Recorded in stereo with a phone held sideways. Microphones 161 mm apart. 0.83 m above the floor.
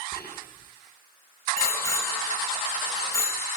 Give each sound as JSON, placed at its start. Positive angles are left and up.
{"t": 0.1, "sound": "whispering", "side_deg": 85, "distance_m": 6.5}
{"t": 1.6, "sound": "a bicycle bell", "side_deg": 15, "distance_m": 3.0}